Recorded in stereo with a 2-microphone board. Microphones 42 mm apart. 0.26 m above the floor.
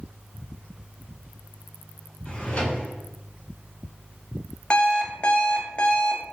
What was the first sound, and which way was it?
A drawer, 25° left (ahead or behind).